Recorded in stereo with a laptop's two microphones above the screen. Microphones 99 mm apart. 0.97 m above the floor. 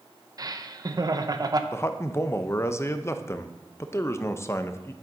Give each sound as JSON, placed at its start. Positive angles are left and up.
{"t": 0.4, "sound": "laughter", "side_deg": -40, "distance_m": 0.6}
{"t": 1.7, "sound": "a man speaking", "side_deg": 25, "distance_m": 0.5}